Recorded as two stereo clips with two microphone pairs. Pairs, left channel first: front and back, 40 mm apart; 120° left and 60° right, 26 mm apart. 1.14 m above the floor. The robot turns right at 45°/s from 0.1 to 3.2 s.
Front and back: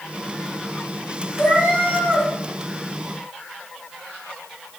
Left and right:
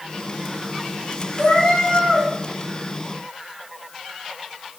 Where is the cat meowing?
45° left, 3 m; by 2.3 s 90° left, 3 m.